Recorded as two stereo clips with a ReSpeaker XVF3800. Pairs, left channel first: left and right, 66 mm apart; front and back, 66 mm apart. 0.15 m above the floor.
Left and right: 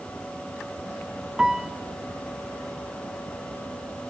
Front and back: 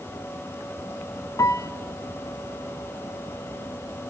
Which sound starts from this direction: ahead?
A piano, at 1.4 s.